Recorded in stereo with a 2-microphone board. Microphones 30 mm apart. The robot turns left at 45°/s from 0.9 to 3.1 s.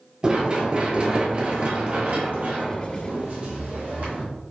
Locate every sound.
0.2 s running footsteps: 25° right (ahead or behind), 1.0 m; by 4.2 s 55° right (ahead or behind), 2 m